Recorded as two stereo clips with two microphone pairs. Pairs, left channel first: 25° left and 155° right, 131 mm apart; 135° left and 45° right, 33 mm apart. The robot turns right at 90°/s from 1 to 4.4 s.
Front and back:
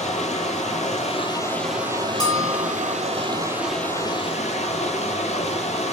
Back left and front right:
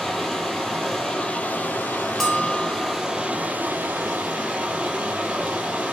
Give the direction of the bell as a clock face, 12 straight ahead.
11 o'clock.